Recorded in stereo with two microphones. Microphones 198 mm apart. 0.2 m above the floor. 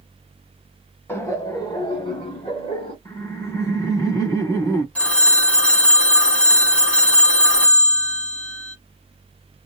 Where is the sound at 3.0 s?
20° left (ahead or behind), 1.0 m.